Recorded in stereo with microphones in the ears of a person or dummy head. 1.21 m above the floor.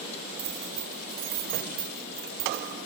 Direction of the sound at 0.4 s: 65° right (ahead or behind).